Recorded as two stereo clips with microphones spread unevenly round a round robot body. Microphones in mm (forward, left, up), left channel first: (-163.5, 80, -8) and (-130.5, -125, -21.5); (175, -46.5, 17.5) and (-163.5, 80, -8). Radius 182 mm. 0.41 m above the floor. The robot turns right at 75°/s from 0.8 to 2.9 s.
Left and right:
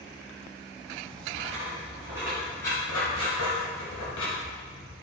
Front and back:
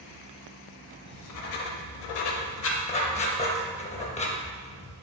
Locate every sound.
1.1 s writing: 85° right, 0.8 m; by 4.9 s 55° left, 0.8 m